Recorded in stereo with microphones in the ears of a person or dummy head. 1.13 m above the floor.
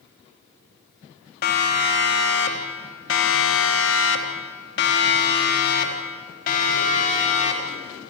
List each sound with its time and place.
1.4 s a siren: 50° left (ahead or behind), 3 m; by 7.8 s 40° left (ahead or behind), 4.5 m